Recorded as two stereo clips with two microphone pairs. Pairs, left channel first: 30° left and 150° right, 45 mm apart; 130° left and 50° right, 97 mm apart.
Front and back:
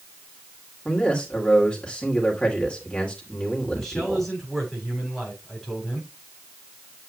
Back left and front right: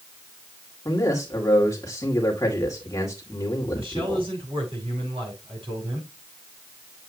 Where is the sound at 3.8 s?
50° right, 6.5 m.